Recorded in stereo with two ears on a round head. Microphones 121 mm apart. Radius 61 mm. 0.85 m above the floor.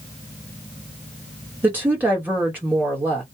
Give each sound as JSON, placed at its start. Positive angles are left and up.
{"t": 1.6, "sound": "a woman speaking", "side_deg": -15, "distance_m": 1.2}